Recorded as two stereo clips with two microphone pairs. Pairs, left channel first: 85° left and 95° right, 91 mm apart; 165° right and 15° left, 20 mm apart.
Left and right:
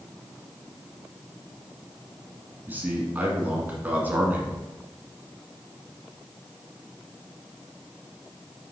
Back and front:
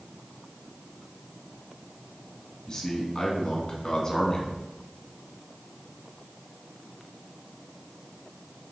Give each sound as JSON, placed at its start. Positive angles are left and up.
{"t": 2.7, "sound": "a man speaking", "azimuth_deg": -145, "distance_m": 1.6}